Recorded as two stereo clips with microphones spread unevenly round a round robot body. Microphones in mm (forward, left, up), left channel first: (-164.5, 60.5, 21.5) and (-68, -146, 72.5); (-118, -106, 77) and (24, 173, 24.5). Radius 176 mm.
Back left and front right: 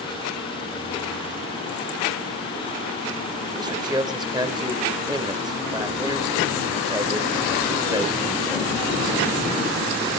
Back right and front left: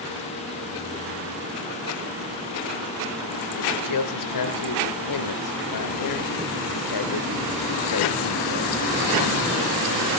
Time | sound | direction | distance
3.5 | a man speaking | 140° right | 3.5 m